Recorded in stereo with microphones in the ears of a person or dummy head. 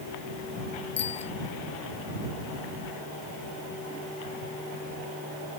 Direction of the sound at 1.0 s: 35° left (ahead or behind).